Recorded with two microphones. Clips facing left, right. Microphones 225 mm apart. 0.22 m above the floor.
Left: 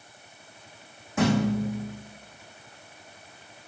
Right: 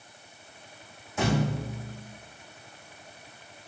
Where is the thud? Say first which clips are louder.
Left 5 dB; 80° left, 5.5 m.